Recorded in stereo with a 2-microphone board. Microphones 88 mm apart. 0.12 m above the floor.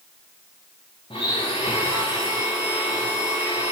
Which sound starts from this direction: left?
A blender, at 1.1 s.